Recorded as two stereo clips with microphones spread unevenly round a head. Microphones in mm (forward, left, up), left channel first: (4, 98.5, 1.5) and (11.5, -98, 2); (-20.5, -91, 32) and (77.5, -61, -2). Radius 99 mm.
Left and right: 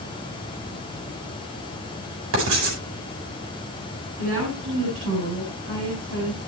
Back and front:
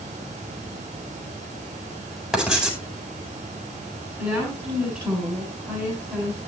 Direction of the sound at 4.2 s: 65° right.